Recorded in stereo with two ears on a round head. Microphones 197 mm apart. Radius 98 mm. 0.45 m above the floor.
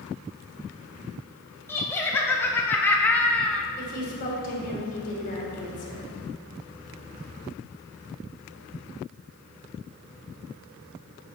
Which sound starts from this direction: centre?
Laughter, at 1.7 s.